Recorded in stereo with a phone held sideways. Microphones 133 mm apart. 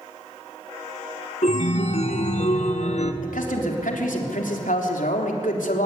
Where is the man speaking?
90° left, 3.5 m.